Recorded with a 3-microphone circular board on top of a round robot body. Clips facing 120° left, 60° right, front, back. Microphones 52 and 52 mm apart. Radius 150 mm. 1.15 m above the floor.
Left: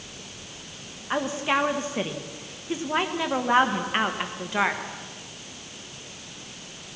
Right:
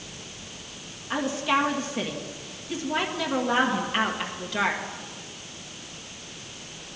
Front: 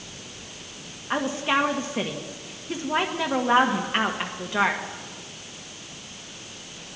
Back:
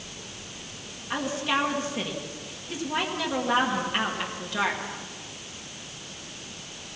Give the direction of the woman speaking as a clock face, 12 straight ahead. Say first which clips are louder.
Even, front 3 dB; 10 o'clock.